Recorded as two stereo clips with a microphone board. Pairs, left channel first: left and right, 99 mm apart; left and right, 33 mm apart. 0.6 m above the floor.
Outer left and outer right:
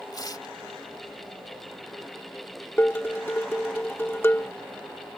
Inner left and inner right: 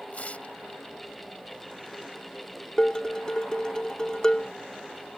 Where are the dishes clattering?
20° left (ahead or behind).